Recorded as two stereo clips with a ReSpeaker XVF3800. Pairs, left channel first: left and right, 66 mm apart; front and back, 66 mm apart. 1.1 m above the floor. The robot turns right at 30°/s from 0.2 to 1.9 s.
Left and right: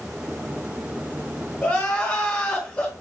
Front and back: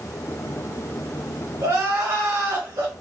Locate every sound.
1.6 s crying: 150° left, 1.3 m; by 2.9 s 160° left, 1.3 m